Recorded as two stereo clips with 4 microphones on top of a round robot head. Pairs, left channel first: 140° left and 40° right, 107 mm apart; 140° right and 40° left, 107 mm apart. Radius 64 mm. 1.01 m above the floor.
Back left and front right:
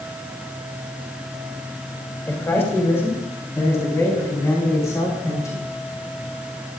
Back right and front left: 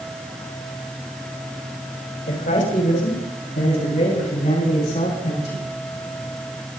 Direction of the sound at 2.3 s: 150° right.